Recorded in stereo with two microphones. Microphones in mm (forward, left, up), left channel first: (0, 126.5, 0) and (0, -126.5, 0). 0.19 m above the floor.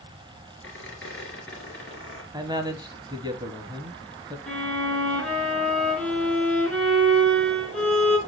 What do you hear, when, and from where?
0.6 s a squeak: 50° left (ahead or behind), 2 m
2.3 s a man speaking: 15° right (ahead or behind), 1.0 m
4.5 s a violin: 5° left (ahead or behind), 2 m